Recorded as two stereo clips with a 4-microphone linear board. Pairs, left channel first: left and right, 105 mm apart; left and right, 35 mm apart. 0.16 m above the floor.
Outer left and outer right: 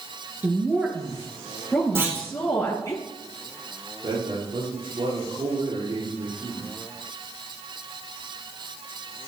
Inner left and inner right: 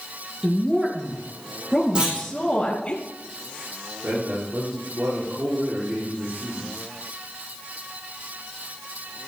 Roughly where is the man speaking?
Right.